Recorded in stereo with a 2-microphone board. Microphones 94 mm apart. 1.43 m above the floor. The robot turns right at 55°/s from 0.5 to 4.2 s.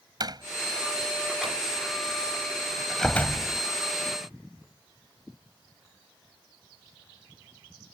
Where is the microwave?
I don't hear a microwave.